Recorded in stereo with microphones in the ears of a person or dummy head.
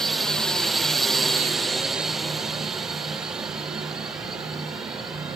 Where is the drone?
5° left (ahead or behind); by 5.4 s 5° right (ahead or behind).